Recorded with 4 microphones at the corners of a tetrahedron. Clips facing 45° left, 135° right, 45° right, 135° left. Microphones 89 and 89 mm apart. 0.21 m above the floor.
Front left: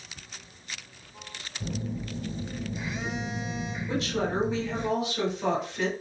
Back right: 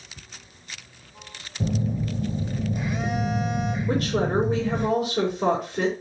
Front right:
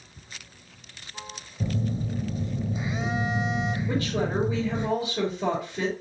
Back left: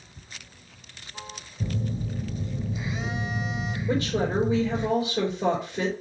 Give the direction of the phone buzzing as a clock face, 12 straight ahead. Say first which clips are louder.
Back right 8 dB, front right 2 dB; 4 o'clock.